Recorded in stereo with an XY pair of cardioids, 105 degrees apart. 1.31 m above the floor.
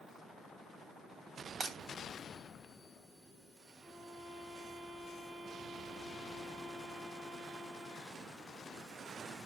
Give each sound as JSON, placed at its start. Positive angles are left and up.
{"t": 1.6, "sound": "breaking glass", "azimuth_deg": -55, "distance_m": 3.0}
{"t": 3.8, "sound": "a violin", "azimuth_deg": -50, "distance_m": 3.0}